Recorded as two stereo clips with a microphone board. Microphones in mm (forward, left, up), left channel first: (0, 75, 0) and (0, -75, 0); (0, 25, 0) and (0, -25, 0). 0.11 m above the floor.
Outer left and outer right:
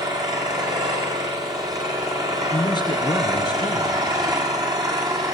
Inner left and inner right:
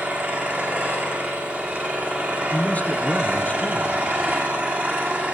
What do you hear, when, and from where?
0.0 s an engine running: 25° right (ahead or behind), 5.5 m
2.5 s a man speaking: 30° left (ahead or behind), 2.5 m